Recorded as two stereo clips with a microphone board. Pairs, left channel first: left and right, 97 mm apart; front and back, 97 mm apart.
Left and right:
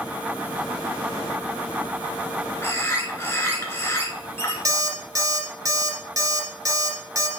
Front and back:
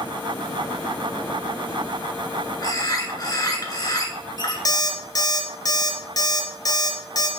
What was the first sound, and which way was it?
A bird, 35° left.